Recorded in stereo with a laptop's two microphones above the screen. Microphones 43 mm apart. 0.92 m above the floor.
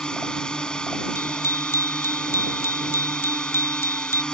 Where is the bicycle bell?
85° left.